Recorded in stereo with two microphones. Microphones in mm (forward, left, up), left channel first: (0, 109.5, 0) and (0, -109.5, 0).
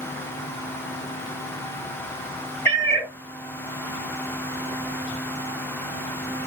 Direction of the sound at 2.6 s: 10° left (ahead or behind).